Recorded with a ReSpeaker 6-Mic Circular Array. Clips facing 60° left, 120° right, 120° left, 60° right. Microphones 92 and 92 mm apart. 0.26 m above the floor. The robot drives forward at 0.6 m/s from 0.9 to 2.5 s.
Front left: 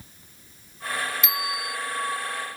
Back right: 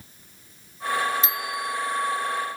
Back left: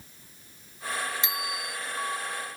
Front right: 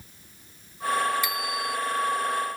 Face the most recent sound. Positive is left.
turn(degrees=-175)